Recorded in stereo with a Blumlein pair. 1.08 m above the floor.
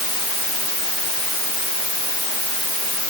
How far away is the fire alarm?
I don't hear a fire alarm.